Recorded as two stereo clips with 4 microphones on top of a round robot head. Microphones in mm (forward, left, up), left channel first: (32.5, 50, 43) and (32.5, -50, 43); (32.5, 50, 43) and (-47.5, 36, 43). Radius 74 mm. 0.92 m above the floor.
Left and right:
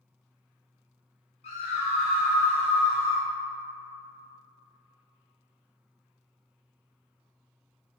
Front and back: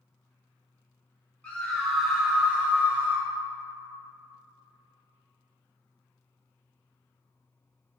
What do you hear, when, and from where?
1.4 s a scream: 85° left, 1.5 m; by 3.3 s 125° left, 2 m